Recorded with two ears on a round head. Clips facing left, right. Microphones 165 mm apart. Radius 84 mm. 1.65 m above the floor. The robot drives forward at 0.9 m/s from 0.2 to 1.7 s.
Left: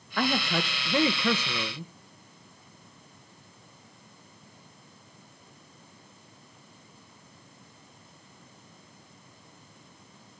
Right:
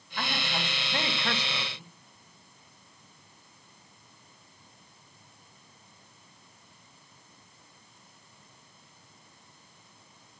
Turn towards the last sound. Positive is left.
turn(degrees=80)